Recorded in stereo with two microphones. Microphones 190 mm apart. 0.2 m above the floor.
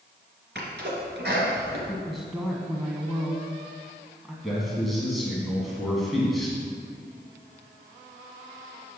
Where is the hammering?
No hammering in this recording.